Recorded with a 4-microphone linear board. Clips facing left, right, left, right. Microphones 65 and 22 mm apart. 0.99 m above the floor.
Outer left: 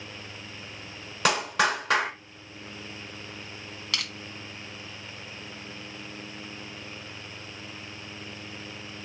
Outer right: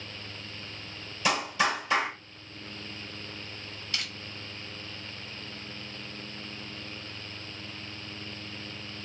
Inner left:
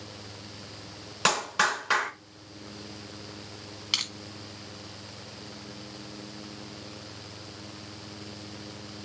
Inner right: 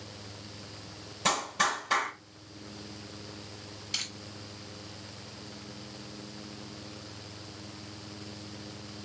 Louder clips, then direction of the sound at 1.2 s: Outer left 3 dB, inner left 3 dB; 65° left (ahead or behind).